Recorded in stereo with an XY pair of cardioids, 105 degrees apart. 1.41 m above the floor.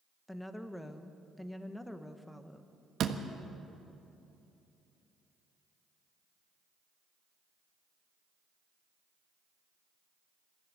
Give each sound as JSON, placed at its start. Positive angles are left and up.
{"t": 0.3, "sound": "a woman speaking", "azimuth_deg": 10, "distance_m": 1.5}
{"t": 3.0, "sound": "a door slam", "azimuth_deg": -60, "distance_m": 1.4}